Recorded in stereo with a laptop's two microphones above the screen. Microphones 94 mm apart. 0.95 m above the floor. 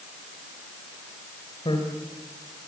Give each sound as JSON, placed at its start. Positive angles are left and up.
{"t": 1.6, "sound": "a man speaking", "side_deg": 60, "distance_m": 4.0}